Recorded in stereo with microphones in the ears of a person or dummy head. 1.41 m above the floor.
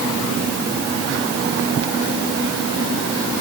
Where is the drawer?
I don't hear a drawer.